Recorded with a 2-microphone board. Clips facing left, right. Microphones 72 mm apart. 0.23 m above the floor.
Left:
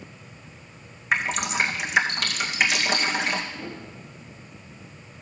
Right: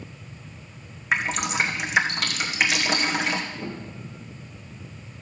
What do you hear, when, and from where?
1.1 s dripping: centre (ahead or behind), 1.9 m
3.5 s a piano: 20° right (ahead or behind), 2.5 m